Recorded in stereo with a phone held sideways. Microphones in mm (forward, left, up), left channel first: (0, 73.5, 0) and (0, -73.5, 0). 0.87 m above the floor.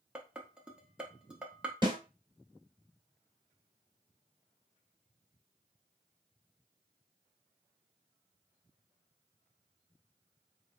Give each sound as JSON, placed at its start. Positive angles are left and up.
{"t": 0.1, "sound": "dishes clattering", "side_deg": -5, "distance_m": 0.7}
{"t": 1.8, "sound": "a snare drum", "side_deg": -30, "distance_m": 1.4}